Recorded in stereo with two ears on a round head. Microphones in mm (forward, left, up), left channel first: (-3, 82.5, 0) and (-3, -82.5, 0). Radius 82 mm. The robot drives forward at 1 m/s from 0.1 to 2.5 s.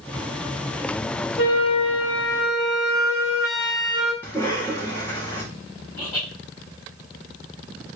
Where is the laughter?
10° left (ahead or behind), 3.5 m.